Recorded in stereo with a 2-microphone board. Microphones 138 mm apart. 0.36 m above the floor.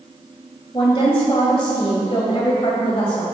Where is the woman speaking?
40° left (ahead or behind), 1.4 m.